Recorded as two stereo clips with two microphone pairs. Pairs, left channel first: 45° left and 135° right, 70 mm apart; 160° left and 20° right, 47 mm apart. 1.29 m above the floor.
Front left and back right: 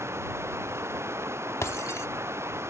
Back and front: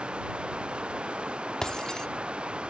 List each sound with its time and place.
0.0 s running water: 85° right
1.6 s breaking glass: 85° left